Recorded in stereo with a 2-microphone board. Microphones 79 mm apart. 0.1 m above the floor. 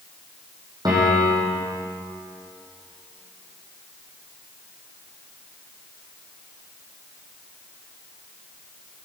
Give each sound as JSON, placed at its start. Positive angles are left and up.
{"t": 0.8, "sound": "a piano", "side_deg": -55, "distance_m": 3.5}